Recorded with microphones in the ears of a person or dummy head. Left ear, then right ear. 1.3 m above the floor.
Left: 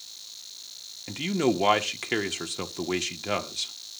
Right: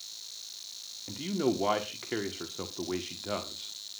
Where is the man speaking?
70° left (ahead or behind), 1.3 m.